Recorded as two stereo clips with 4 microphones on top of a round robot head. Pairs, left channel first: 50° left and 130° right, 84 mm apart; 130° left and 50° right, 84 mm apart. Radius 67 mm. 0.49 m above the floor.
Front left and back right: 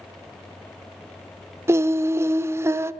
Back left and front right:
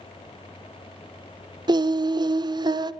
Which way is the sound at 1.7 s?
75° right.